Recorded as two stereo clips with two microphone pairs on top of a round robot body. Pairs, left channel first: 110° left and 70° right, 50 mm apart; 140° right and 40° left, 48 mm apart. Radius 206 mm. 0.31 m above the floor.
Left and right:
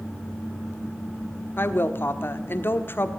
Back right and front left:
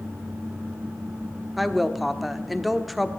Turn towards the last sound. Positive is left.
turn(degrees=125)